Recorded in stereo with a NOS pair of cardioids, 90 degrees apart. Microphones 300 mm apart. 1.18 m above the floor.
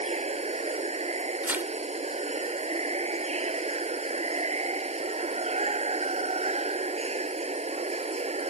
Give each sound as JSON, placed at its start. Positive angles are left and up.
{"t": 0.0, "sound": "running water", "azimuth_deg": -20}
{"t": 1.4, "sound": "tearing paper", "azimuth_deg": -5}